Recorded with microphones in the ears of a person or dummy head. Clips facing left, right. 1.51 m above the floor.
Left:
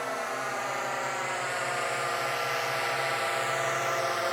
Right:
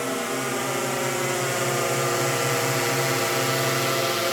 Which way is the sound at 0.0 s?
45° right (ahead or behind).